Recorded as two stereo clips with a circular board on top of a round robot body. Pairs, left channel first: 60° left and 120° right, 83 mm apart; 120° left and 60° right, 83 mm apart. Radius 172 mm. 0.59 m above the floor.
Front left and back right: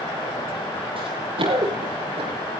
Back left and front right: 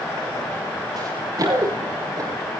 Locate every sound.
1.0 s running footsteps: 105° right, 6.5 m; by 2.3 s 110° right, 6.5 m